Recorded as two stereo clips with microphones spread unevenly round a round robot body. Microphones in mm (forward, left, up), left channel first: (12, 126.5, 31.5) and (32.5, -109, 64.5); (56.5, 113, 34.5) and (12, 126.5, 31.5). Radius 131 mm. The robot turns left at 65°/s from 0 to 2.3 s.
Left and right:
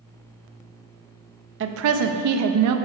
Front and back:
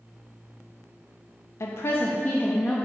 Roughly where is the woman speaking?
Ahead right.